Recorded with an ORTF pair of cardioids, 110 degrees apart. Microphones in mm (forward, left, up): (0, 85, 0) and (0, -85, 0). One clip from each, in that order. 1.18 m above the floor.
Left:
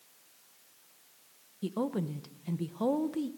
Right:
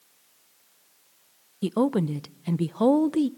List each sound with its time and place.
1.6 s a woman speaking: 45° right, 0.6 m